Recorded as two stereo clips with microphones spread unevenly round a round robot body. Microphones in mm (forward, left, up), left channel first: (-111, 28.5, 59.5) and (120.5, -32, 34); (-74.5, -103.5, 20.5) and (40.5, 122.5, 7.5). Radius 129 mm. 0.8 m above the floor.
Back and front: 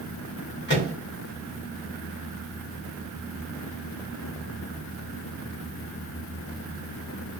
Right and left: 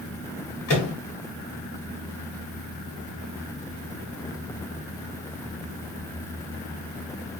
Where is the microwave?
145° right, 1.7 m.